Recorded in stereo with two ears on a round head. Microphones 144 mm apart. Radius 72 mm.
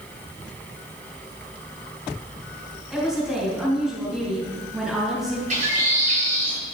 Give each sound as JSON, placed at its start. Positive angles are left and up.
{"t": 2.9, "sound": "a woman speaking", "side_deg": 0, "distance_m": 4.0}
{"t": 5.5, "sound": "a bird", "side_deg": -50, "distance_m": 2.5}